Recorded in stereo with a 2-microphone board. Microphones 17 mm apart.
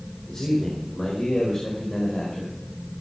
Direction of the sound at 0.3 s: 35° left (ahead or behind).